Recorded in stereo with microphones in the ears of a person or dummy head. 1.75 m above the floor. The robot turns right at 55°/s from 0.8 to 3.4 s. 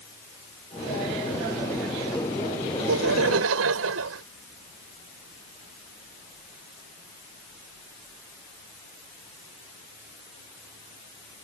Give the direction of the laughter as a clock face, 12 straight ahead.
4 o'clock.